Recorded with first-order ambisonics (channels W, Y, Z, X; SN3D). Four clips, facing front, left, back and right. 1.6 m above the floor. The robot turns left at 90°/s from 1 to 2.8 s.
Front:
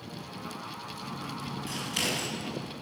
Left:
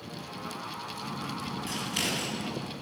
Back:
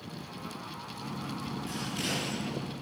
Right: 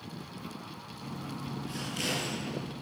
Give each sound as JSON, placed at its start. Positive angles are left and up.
{"t": 1.7, "sound": "scissors", "azimuth_deg": 65, "distance_m": 7.0}